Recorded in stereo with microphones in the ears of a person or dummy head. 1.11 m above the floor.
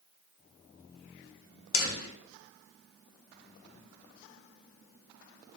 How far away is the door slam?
About 0.9 m.